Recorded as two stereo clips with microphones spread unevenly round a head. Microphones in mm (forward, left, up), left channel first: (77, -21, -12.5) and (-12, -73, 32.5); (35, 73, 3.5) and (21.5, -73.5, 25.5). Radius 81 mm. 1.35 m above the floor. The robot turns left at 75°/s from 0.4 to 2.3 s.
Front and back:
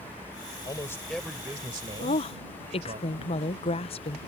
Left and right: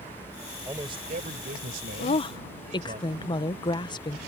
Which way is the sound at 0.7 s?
20° right.